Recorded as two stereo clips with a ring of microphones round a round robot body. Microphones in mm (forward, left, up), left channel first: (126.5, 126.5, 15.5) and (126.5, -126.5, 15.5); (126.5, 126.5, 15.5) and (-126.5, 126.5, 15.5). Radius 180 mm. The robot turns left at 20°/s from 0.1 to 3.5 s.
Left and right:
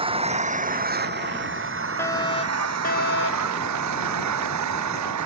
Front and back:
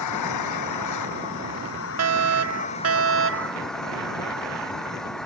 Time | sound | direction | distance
0.0 | an engine running | 20° right | ?
2.0 | a fire alarm | 175° left | ?